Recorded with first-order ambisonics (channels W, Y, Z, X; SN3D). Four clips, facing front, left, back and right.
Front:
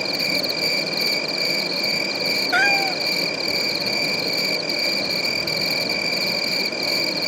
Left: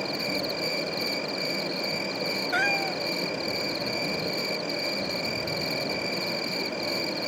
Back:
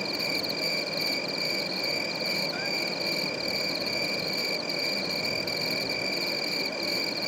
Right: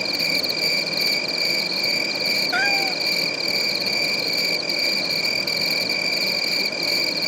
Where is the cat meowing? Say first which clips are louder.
Right 5 dB, front 12 dB; 10° right.